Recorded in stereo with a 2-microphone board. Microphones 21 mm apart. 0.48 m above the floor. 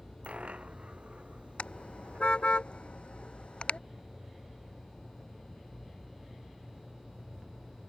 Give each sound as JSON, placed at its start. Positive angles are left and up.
{"t": 0.2, "sound": "a dropped coin", "side_deg": -75}
{"t": 1.6, "sound": "a car horn", "side_deg": 65}